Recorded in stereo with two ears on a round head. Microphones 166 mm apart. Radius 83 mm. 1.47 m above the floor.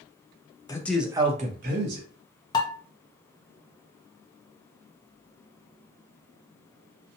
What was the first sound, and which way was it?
A man speaking, 20° left (ahead or behind).